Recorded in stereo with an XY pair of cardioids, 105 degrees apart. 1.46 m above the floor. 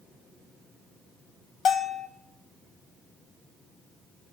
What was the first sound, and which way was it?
A bell, 65° left.